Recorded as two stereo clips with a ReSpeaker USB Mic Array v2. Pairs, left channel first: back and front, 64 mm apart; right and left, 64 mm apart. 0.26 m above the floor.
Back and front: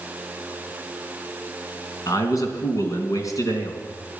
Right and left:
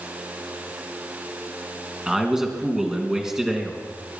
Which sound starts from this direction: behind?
A man speaking, at 2.1 s.